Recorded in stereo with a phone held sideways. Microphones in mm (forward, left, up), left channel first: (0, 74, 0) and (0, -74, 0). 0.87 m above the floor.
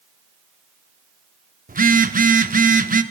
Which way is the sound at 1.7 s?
65° right (ahead or behind).